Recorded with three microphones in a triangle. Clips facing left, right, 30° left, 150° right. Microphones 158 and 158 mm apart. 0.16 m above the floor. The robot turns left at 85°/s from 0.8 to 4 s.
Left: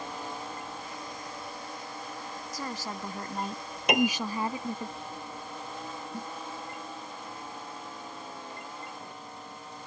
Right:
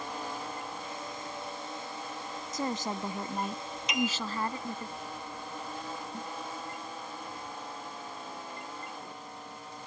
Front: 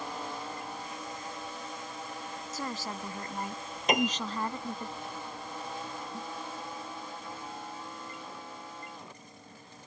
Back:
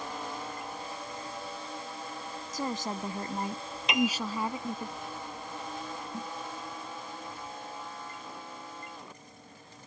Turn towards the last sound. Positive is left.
turn(degrees=160)